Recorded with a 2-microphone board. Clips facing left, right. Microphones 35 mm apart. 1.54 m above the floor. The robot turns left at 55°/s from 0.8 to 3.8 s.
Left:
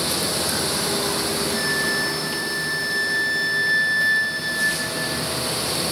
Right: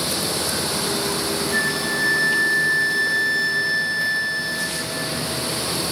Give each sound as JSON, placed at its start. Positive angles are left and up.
{"t": 1.5, "sound": "a flute", "azimuth_deg": -75, "distance_m": 0.8}